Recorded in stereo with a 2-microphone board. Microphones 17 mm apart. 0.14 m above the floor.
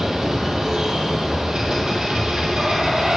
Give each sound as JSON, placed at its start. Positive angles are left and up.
{"t": 0.0, "sound": "running water", "side_deg": -60, "distance_m": 1.6}